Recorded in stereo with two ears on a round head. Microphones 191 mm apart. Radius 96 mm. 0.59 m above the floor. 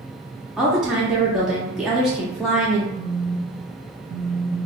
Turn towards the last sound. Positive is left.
turn(degrees=-25)  # may be behind; listen again after turning